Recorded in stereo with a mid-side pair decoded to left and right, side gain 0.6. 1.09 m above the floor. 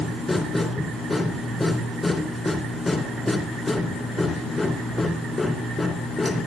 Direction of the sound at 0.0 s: 15° left.